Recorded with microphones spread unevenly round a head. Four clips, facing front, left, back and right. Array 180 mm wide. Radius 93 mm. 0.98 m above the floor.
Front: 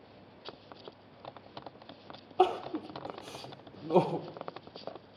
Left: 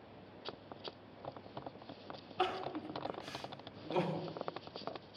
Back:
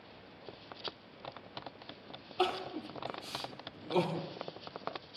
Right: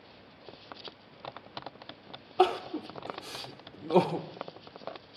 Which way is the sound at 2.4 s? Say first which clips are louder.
Right 11 dB, front 6 dB; 50° right.